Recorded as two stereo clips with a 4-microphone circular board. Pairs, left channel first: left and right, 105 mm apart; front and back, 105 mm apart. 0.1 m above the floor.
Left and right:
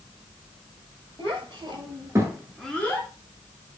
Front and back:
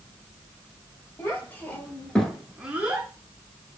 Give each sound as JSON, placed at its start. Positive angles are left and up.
{"t": 1.2, "sound": "a child speaking", "azimuth_deg": -65, "distance_m": 1.7}